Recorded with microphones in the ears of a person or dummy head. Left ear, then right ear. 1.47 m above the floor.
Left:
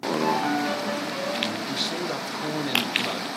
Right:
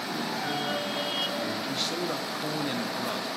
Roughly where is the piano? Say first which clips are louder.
Left 7 dB; left.